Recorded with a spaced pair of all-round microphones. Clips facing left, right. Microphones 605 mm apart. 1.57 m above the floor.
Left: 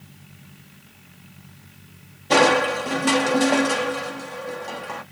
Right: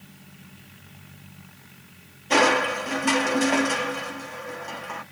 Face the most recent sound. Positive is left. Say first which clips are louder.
# left 4 dB
turn(degrees=60)  # may be behind; listen again after turning